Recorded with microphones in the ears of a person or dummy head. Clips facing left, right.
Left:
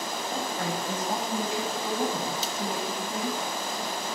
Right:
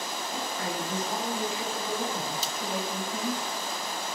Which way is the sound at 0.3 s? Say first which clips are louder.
Left 2 dB; 40° left (ahead or behind).